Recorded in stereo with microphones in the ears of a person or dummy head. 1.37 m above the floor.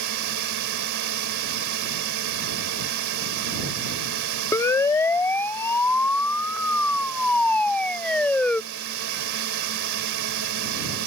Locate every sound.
0.0 s a drone: 65° right (ahead or behind)
4.5 s a siren: 20° left (ahead or behind); by 8.6 s 10° left (ahead or behind)